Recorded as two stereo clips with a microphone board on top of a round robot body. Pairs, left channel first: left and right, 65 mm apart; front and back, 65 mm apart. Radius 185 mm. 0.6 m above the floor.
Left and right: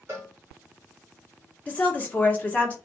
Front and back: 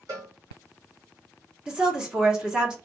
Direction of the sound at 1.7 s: 120° left.